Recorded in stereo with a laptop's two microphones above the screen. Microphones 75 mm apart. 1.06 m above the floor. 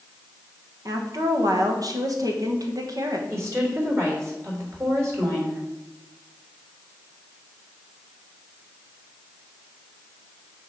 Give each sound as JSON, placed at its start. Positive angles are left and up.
{"t": 0.8, "sound": "a woman speaking", "side_deg": -50, "distance_m": 1.2}
{"t": 3.3, "sound": "a woman speaking", "side_deg": -40, "distance_m": 3.0}